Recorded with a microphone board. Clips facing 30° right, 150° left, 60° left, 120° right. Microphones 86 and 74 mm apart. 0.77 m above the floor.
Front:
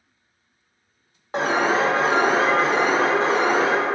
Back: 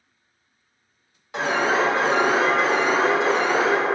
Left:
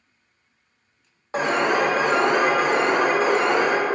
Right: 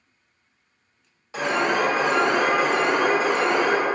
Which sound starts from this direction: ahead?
An alarm, at 1.3 s.